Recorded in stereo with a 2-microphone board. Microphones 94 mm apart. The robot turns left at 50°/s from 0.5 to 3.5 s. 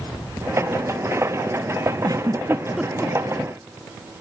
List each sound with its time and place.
2.0 s a giggle: 45° right (ahead or behind); by 3.1 s 15° left (ahead or behind)